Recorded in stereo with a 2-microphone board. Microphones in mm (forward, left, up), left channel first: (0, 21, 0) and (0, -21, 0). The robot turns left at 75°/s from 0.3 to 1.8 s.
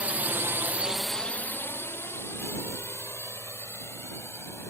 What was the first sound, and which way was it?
A drone, 35° right (ahead or behind).